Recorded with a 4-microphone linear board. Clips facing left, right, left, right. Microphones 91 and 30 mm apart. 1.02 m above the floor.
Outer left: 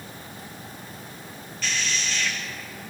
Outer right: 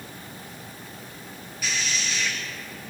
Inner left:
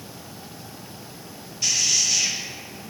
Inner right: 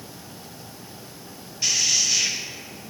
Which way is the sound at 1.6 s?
10° right (ahead or behind).